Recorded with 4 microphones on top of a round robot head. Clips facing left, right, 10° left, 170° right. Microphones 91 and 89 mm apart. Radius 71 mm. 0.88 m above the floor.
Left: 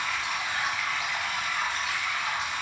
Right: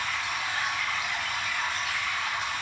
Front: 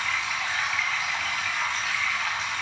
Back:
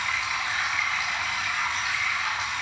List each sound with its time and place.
0.0 s running water: 115° left, 4.5 m